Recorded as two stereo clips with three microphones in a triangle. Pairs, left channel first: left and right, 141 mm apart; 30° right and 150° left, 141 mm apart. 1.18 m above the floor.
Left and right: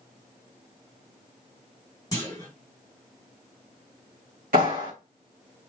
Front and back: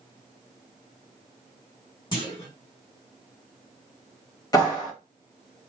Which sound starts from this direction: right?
A clap, at 4.5 s.